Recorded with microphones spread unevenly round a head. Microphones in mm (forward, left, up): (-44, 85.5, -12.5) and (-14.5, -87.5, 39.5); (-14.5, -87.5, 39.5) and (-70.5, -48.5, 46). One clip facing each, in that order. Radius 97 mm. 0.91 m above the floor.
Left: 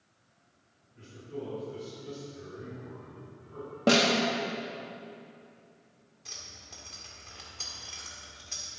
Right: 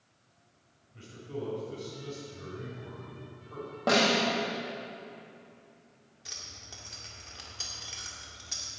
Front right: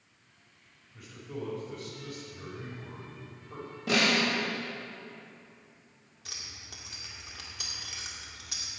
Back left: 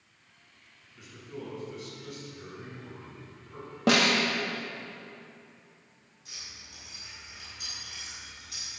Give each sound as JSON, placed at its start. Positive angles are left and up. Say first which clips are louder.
{"t": 0.9, "sound": "a man speaking", "louder": "right 1 dB, front right 2 dB", "azimuth_deg": -55, "distance_m": 5.0}
{"t": 3.9, "sound": "a snare drum", "louder": "left 2 dB, back left 3 dB", "azimuth_deg": 140, "distance_m": 1.8}
{"t": 6.2, "sound": "keys jangling", "louder": "even, front right 2 dB", "azimuth_deg": 0, "distance_m": 1.4}